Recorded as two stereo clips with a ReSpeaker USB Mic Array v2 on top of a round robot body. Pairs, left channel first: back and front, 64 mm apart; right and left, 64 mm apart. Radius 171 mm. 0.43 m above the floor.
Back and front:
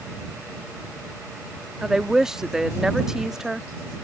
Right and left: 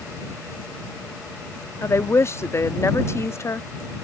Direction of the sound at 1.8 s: 80° right.